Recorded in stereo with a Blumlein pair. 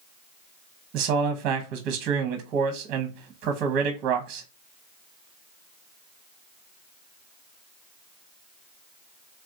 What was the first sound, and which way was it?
A man speaking, 35° right.